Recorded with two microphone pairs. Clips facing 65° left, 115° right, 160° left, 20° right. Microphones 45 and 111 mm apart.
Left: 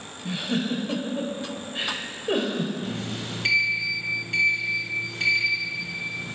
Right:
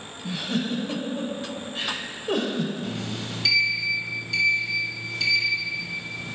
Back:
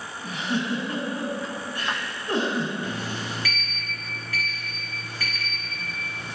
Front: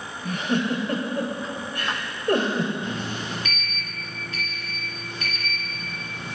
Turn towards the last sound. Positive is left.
turn(degrees=35)